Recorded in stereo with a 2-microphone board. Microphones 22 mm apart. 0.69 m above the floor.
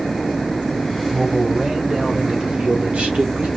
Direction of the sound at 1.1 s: 30° right (ahead or behind).